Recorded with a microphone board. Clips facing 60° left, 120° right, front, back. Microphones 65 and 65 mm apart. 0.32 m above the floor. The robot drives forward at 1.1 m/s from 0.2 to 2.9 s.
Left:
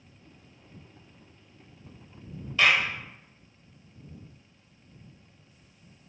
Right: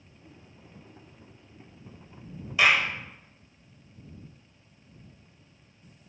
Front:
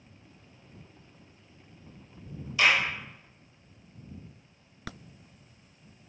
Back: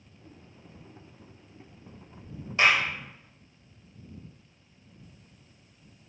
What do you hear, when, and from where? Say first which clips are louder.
2.6 s a clap: right 1 dB, back 1 dB; 170° left, 1.4 m